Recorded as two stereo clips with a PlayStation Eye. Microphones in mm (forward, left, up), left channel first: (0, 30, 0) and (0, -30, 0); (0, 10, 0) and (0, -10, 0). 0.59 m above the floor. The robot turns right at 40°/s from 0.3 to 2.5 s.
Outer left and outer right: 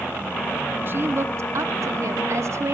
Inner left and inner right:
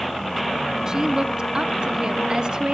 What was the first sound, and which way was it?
A woman speaking, 135° right.